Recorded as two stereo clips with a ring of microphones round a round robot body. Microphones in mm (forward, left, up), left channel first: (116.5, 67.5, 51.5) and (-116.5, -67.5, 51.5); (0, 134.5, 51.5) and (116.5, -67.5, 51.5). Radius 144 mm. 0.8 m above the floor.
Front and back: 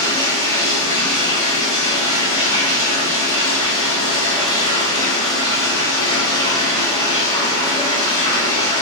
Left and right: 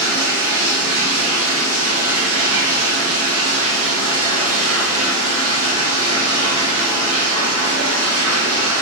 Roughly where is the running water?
Ahead right.